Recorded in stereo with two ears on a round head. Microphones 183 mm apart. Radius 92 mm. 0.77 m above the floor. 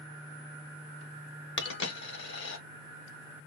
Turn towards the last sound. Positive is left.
turn(degrees=60)  # may be behind; listen again after turning